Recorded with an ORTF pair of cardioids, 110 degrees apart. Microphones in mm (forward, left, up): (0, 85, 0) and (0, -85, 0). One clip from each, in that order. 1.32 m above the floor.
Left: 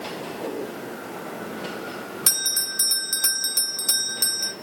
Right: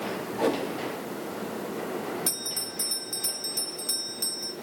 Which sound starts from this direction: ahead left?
A bell, at 2.3 s.